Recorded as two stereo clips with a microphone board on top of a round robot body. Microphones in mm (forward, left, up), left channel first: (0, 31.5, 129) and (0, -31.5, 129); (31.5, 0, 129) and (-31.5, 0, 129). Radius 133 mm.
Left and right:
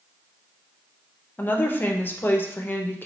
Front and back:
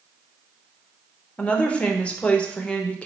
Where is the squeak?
No squeak in this recording.